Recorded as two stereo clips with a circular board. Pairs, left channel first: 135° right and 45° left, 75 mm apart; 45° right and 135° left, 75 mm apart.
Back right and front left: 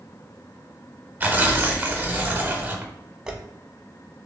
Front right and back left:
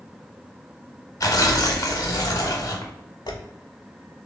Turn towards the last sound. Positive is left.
turn(degrees=-35)